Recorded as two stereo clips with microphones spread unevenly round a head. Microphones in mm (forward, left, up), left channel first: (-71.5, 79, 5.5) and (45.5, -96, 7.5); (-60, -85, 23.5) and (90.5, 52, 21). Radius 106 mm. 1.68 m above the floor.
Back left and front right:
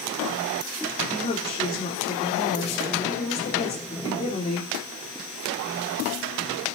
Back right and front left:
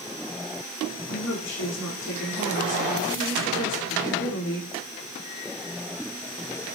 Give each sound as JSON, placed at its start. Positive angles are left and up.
{"t": 1.1, "sound": "a woman speaking", "azimuth_deg": -165, "distance_m": 4.5}